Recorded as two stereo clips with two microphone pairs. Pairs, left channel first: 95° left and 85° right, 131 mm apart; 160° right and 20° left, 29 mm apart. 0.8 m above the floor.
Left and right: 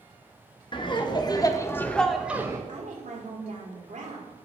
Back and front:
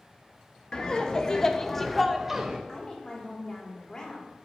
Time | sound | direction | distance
0.7 | laughter | 140° left | 1.0 m
2.7 | a woman speaking | 90° right | 1.8 m